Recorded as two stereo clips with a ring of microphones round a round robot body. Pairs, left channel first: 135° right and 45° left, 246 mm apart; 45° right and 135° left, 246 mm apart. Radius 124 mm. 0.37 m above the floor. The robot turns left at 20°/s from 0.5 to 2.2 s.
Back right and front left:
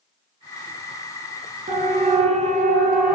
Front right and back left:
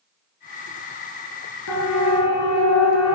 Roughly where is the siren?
Ahead.